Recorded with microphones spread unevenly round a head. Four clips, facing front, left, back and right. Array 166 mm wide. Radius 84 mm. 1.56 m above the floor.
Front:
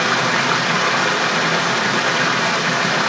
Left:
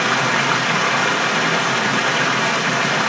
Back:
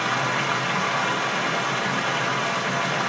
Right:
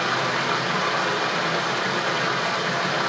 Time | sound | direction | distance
0.0 | running water | 40° left | 0.8 m